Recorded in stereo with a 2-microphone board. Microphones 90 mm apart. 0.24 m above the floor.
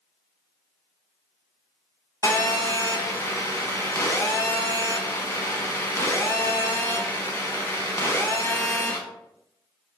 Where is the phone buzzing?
30° left (ahead or behind), 0.8 m.